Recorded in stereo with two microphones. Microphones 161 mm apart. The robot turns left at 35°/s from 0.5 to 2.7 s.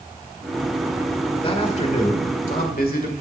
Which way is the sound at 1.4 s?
145° left.